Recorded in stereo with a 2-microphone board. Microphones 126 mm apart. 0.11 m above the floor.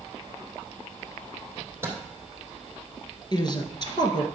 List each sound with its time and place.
1.6 s a microwave: 20° right (ahead or behind), 2.5 m
3.3 s a woman speaking: 35° left (ahead or behind), 1.4 m